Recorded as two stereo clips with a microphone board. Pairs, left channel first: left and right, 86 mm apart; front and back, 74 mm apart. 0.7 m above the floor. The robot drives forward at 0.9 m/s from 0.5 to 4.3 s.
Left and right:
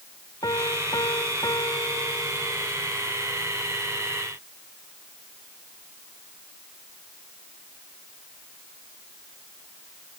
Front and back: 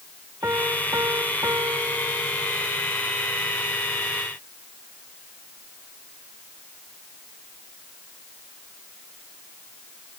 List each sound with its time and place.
0.4 s a piano: 125° left; by 2.7 s 135° left